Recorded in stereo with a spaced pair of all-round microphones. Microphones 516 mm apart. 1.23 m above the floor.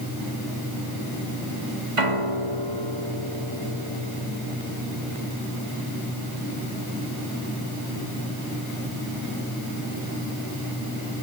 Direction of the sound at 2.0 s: 85° right.